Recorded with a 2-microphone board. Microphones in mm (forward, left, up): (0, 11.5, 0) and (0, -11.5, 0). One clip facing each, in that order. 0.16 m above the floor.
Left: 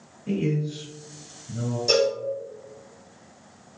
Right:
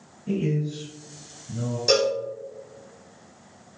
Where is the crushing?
No crushing in this recording.